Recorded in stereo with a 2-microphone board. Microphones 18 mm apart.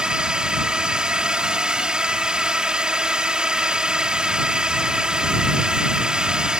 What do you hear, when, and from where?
0.0 s a drone: 50° right (ahead or behind)